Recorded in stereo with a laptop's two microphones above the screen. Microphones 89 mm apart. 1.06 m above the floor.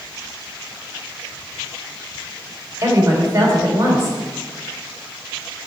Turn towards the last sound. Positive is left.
turn(degrees=-35)  # may be behind; listen again after turning